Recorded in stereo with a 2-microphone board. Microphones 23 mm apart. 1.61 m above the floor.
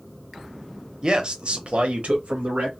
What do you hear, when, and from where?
1.0 s a man speaking: 30° right (ahead or behind), 0.7 m; by 2.8 s 80° right, 1.0 m